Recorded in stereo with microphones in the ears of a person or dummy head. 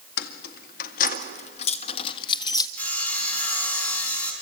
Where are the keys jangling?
70° left (ahead or behind), 2.0 m; by 2.7 s 30° left (ahead or behind), 1.7 m.